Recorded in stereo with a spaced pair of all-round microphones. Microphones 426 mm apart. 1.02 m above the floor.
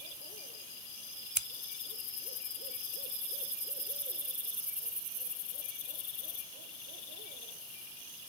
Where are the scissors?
40° right (ahead or behind).